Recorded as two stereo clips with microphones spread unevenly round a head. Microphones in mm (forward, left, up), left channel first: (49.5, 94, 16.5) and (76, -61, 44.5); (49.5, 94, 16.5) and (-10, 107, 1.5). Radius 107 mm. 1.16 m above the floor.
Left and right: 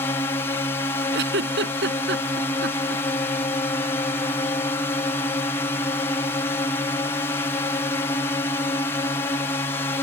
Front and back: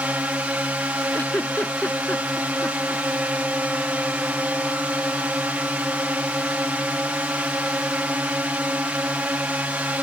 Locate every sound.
0.0 s a drone: 145° left
1.1 s a giggle: 95° right